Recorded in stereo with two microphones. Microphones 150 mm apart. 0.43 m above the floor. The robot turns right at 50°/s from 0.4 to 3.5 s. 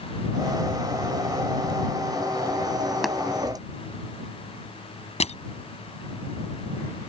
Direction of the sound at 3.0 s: Centre (ahead or behind).